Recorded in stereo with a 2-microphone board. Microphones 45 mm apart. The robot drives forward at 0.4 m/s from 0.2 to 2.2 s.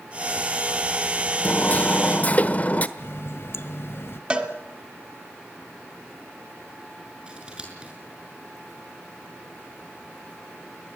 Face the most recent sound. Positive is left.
turn(degrees=-25)  # may be behind; listen again after turning